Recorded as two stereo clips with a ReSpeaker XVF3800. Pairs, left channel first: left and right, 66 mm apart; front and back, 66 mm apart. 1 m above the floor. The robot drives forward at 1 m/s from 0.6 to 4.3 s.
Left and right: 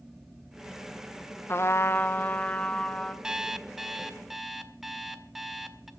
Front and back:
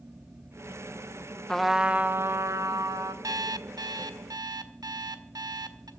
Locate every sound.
1.5 s a trumpet: 75° left, 0.7 m; by 3.1 s 165° left, 1.7 m
3.2 s an alarm clock: 170° right, 0.5 m; by 5.9 s 175° right, 1.5 m